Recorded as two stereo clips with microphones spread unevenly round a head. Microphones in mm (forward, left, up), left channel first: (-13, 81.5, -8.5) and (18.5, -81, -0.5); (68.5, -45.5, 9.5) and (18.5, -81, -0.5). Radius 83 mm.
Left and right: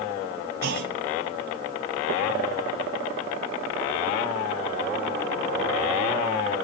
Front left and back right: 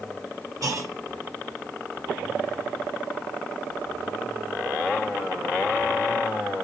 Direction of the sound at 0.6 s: 110° right.